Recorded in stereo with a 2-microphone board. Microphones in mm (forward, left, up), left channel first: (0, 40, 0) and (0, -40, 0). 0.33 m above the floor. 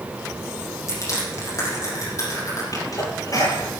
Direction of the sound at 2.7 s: 45° left (ahead or behind).